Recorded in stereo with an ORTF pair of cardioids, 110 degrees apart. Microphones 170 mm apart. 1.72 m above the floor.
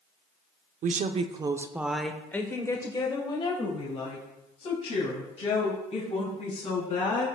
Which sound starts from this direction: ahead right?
A woman speaking, at 0.8 s.